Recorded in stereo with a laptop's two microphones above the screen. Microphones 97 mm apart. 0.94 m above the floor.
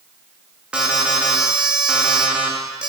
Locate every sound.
0.7 s an alarm: 10° right (ahead or behind), 2 m